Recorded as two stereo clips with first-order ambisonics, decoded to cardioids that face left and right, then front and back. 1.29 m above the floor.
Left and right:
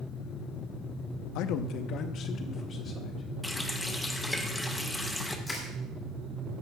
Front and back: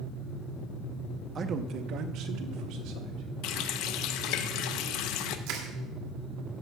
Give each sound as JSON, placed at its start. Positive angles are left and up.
{"t": 1.4, "sound": "a man speaking", "azimuth_deg": 115, "distance_m": 0.7}
{"t": 3.4, "sound": "a running tap", "azimuth_deg": 5, "distance_m": 0.8}
{"t": 5.5, "sound": "crushing", "azimuth_deg": 170, "distance_m": 2.5}